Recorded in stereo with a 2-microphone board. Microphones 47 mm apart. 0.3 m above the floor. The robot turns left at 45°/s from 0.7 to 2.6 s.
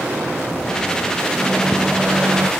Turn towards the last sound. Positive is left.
turn(degrees=-40)